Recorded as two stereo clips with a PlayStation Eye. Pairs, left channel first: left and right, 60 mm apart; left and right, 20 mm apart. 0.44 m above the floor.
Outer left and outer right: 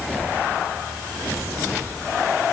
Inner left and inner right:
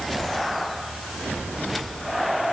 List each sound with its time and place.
Only background noise.